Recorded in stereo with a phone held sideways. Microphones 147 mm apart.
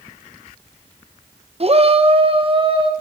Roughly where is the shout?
Right.